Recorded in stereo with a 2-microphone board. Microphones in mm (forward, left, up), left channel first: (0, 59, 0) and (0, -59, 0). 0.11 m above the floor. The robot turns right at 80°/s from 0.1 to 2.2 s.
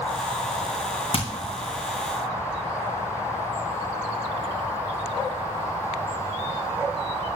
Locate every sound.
1.1 s hammering: 55° left (ahead or behind), 2.5 m; by 1.3 s 45° left (ahead or behind), 2.5 m